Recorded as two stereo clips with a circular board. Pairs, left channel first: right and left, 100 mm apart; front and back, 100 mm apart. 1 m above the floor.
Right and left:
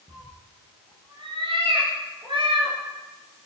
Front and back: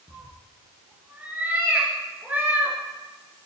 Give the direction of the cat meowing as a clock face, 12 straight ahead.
8 o'clock.